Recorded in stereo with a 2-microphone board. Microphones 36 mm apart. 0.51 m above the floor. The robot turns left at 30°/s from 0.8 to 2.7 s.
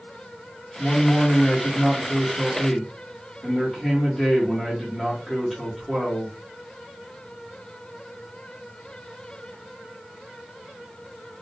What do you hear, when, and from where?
0.8 s a man speaking: 25° left (ahead or behind), 1.0 m; by 6.3 s 15° left (ahead or behind), 1.0 m